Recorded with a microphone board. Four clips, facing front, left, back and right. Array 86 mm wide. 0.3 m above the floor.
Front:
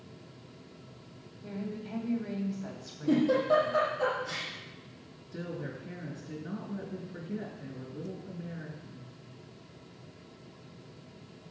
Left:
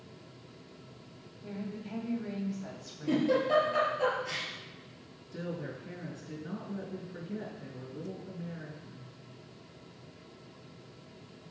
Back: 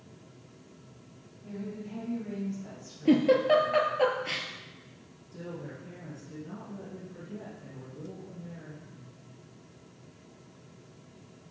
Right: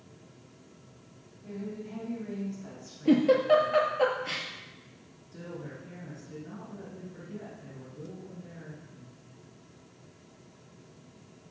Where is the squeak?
No squeak in this recording.